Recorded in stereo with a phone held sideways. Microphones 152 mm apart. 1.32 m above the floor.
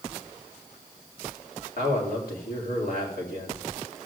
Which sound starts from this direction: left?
A man speaking, at 1.8 s.